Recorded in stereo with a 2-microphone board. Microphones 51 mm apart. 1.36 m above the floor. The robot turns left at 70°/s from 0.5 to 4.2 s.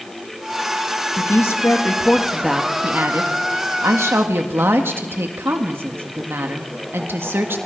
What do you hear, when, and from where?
1.2 s a woman speaking: 85° left, 1.7 m; by 7.6 s 130° right, 1.7 m